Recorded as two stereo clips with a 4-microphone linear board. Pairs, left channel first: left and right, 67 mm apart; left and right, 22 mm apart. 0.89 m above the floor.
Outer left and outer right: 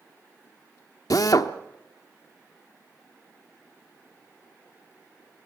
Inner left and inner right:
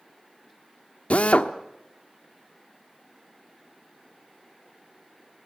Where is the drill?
60° left (ahead or behind), 1.1 m.